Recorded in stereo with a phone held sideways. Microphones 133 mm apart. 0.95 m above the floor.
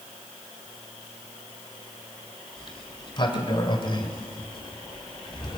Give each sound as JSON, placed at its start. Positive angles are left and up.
{"t": 2.6, "sound": "a sliding door", "side_deg": 40, "distance_m": 2.0}